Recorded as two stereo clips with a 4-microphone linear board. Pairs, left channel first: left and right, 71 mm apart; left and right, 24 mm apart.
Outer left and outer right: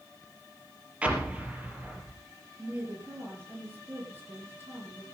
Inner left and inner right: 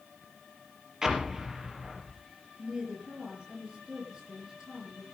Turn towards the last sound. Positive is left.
turn(degrees=-30)  # may be behind; listen again after turning